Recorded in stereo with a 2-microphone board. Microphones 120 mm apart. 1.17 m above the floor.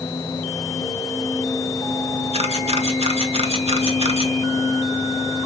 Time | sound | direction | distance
2.3 | a camera shutter | 60° right (ahead or behind) | 1.9 m